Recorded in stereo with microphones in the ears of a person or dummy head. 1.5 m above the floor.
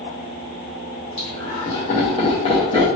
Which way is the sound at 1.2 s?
30° left (ahead or behind).